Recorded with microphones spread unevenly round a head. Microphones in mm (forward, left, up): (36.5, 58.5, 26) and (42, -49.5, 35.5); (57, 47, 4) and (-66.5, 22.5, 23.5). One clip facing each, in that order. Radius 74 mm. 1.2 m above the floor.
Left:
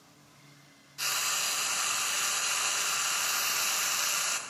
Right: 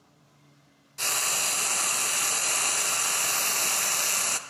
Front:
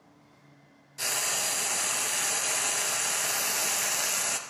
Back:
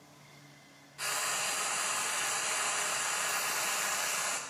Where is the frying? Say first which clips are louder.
Right 4 dB, front 2 dB; 50° right, 0.6 m.